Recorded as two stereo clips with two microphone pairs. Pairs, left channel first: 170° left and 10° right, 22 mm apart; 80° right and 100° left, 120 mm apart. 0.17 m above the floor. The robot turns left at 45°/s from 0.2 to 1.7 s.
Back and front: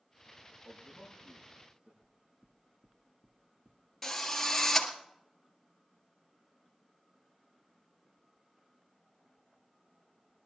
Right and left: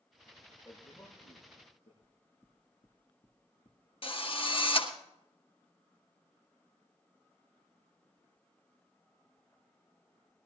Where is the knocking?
105° right, 1.9 m.